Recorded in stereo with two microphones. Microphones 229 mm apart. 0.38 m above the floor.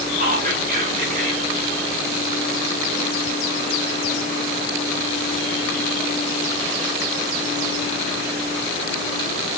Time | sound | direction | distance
0.2 | whispering | 40° right (ahead or behind) | 1.1 m